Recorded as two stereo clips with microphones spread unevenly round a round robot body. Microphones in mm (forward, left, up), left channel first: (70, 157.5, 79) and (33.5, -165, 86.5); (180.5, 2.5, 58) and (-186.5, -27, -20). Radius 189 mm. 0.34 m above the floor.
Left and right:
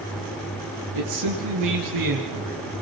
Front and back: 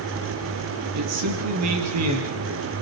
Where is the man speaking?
130° right, 9 m; by 2.8 s 125° right, 7.5 m.